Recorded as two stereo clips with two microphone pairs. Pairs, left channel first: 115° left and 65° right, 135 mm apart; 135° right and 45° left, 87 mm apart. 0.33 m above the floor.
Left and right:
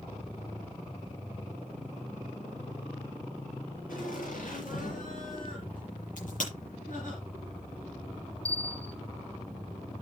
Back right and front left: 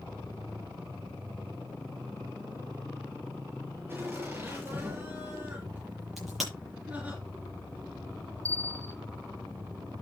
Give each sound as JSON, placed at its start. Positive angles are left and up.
{"t": 3.9, "sound": "laughter", "azimuth_deg": 110, "distance_m": 6.5}
{"t": 6.2, "sound": "a crack", "azimuth_deg": 135, "distance_m": 9.0}
{"t": 8.4, "sound": "a bell", "azimuth_deg": 40, "distance_m": 0.7}